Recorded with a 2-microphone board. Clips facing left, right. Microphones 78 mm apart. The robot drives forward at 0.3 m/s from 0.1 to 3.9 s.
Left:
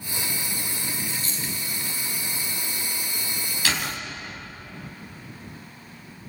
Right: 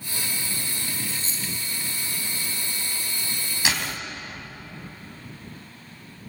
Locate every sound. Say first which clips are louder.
1.1 s a dropped coin: left 1 dB; 30° right (ahead or behind), 4 m
3.6 s a door slam: even; 20° right (ahead or behind), 5 m